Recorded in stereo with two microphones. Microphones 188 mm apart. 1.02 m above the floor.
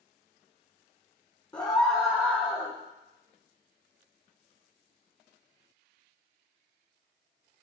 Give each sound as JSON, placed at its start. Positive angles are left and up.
{"t": 1.5, "sound": "a scream", "side_deg": 25, "distance_m": 1.0}